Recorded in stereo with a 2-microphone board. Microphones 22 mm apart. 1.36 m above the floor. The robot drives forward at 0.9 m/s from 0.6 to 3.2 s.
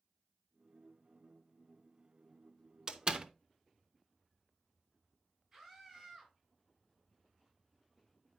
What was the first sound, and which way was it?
A door slam, 40° right (ahead or behind).